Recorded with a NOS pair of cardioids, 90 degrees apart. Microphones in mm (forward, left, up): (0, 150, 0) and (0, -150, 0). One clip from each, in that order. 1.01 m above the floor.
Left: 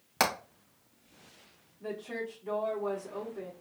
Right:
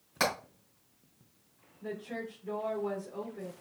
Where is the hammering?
50° left, 3 m.